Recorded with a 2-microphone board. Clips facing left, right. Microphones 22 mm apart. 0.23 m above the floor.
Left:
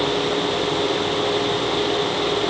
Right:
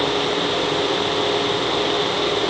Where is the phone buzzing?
I don't hear a phone buzzing.